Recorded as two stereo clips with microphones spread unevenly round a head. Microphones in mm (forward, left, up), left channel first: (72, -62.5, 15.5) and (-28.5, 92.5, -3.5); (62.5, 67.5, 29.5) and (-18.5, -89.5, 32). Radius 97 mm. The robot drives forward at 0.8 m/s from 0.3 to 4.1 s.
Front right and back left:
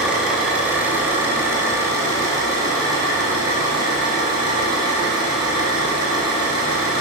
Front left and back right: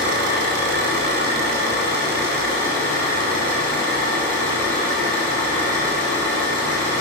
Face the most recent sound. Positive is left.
turn(degrees=-165)